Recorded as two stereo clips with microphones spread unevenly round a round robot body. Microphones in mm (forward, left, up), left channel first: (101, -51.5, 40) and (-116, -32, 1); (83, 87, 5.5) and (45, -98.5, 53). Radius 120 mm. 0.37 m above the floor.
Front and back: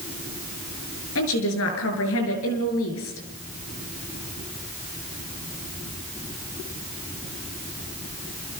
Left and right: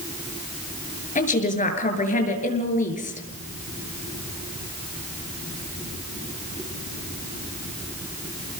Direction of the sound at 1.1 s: 30° left.